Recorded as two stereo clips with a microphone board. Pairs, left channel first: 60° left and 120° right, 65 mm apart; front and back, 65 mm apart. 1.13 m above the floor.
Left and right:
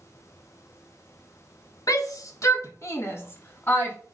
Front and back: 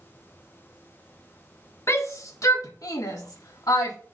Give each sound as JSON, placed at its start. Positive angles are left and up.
{"t": 1.9, "sound": "a shout", "azimuth_deg": 40, "distance_m": 1.2}